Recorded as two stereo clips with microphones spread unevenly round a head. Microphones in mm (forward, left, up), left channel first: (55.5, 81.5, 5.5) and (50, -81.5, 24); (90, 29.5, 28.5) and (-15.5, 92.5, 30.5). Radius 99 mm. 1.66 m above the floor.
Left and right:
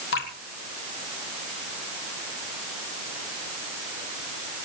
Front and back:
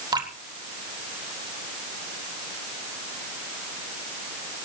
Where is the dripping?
95° left, 3.5 m.